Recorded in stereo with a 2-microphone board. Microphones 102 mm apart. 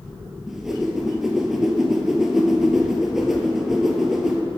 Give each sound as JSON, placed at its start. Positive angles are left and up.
{"t": 0.5, "sound": "a whoosh", "side_deg": -5, "distance_m": 1.1}